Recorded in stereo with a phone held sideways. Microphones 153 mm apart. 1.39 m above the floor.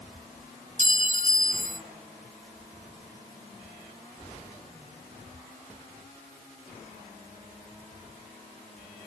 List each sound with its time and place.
0.8 s a clink: 55° right (ahead or behind), 1.4 m